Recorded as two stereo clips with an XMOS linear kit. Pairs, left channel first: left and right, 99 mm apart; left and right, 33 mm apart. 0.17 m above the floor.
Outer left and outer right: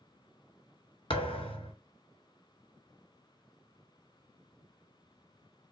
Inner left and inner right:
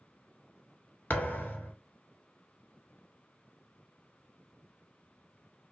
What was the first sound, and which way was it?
A thud, 65° left (ahead or behind).